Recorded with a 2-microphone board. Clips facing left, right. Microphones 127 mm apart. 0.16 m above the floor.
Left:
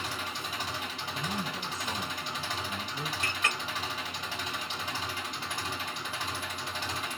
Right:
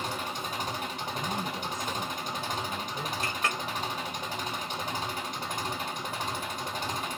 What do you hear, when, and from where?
0.0 s an engine running: 45° right (ahead or behind), 1.6 m
1.1 s a man speaking: 30° left (ahead or behind), 2 m
3.2 s a clink: 35° right (ahead or behind), 1.7 m